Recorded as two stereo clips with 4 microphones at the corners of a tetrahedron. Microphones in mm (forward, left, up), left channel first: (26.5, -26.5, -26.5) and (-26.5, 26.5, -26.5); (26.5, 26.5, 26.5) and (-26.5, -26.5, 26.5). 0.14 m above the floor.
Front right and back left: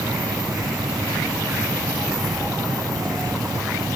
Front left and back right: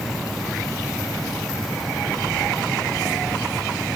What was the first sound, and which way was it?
Only background noise.